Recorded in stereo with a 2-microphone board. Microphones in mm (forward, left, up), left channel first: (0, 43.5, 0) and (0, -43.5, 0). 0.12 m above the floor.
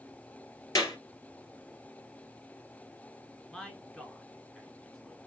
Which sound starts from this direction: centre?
A man speaking, at 3.5 s.